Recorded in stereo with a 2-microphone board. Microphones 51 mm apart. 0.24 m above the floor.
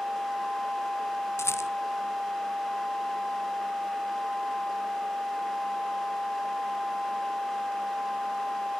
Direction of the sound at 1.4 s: 65° left (ahead or behind).